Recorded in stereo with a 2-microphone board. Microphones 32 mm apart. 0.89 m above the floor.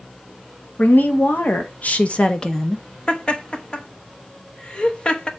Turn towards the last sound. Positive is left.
turn(degrees=30)  # may be behind; listen again after turning